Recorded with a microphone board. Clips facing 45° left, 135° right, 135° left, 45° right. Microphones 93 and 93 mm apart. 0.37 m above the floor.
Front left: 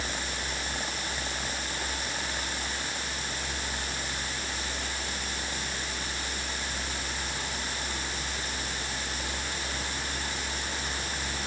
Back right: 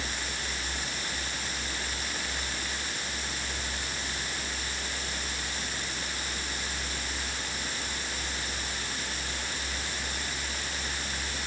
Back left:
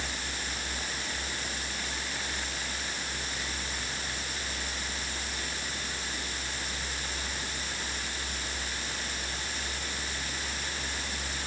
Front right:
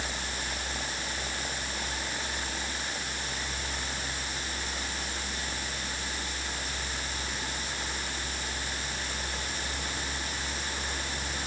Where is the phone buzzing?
I don't hear a phone buzzing.